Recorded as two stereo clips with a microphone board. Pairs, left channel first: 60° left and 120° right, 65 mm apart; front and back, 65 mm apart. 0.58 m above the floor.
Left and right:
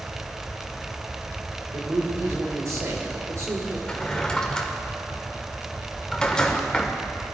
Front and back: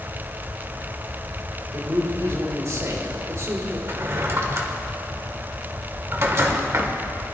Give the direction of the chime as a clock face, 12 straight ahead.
No chime in this recording.